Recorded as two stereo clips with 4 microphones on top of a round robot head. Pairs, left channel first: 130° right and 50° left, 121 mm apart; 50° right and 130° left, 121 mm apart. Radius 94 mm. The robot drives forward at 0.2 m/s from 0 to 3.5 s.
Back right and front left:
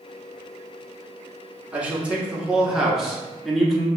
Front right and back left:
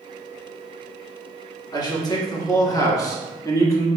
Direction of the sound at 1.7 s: 25° right.